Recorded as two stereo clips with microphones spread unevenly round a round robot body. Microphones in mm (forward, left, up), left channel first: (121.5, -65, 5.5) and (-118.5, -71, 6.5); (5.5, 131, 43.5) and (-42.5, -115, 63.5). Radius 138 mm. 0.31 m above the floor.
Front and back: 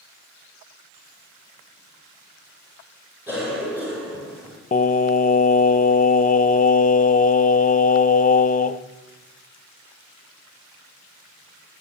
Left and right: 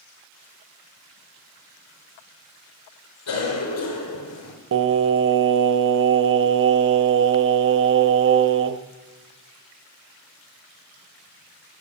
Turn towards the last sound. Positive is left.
turn(degrees=-55)